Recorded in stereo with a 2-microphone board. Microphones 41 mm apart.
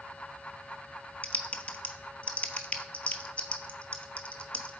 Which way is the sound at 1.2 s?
30° left (ahead or behind).